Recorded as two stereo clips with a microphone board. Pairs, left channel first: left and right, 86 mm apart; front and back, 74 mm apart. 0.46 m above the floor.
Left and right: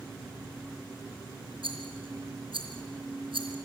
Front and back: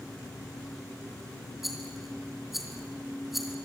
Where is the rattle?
90° right, 3.5 m.